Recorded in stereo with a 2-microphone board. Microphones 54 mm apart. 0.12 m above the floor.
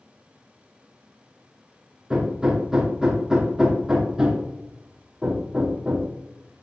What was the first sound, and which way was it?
Hammering, 15° right (ahead or behind).